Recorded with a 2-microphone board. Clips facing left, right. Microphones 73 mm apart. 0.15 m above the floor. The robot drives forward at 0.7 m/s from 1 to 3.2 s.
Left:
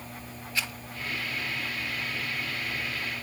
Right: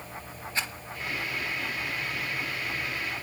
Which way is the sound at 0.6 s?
25° right (ahead or behind).